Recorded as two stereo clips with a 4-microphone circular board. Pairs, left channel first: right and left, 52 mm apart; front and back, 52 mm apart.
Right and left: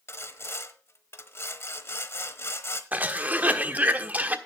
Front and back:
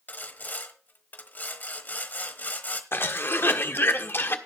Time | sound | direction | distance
0.1 | sawing | 55° right | 1.0 m
2.9 | a cough | 35° left | 1.3 m